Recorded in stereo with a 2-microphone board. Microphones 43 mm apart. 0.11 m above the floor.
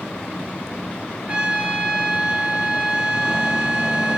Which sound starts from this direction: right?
A trumpet, at 1.3 s.